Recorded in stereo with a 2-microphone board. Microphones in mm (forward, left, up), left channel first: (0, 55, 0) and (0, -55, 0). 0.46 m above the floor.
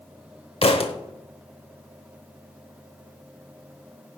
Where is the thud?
60° left (ahead or behind), 0.7 m.